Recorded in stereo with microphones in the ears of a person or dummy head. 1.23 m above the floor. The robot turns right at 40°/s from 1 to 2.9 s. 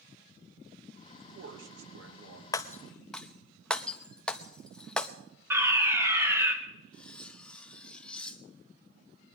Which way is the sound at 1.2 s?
120° right.